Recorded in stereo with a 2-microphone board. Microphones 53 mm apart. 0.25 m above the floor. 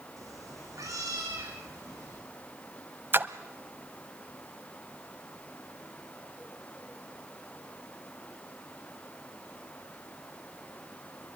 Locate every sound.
0.2 s a cat meowing: 90° right, 4 m
3.1 s a splash: 45° right (ahead or behind), 0.8 m